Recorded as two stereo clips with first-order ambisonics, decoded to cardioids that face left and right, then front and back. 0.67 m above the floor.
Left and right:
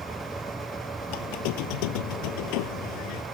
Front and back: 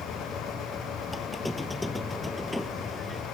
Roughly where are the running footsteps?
No running footsteps in this recording.